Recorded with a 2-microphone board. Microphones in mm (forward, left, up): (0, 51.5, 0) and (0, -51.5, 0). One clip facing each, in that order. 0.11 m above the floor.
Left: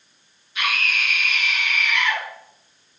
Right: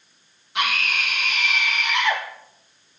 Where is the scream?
65° right (ahead or behind), 4 m.